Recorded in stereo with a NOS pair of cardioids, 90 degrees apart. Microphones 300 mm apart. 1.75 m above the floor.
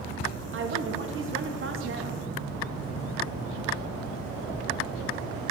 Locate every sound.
0.5 s a woman speaking: 45° right, 1.5 m